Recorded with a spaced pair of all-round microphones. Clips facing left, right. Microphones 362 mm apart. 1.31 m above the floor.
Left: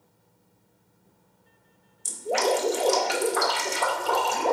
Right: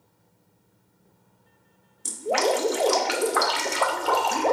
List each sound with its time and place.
2.0 s dripping: 75° right (ahead or behind), 0.5 m